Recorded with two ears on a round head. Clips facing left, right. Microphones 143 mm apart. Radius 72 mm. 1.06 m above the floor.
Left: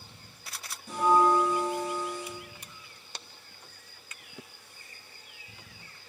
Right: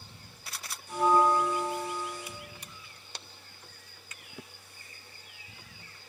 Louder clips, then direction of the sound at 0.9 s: Left 1 dB; 60° left (ahead or behind).